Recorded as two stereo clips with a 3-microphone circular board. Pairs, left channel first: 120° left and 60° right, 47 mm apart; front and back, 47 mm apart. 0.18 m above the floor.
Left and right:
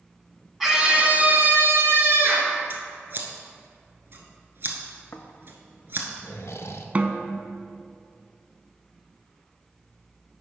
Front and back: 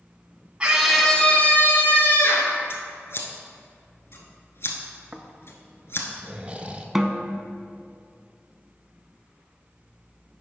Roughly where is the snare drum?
Right.